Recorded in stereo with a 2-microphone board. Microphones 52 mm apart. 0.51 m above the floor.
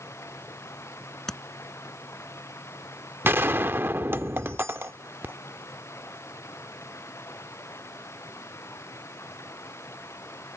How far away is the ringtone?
No ringtone in this recording.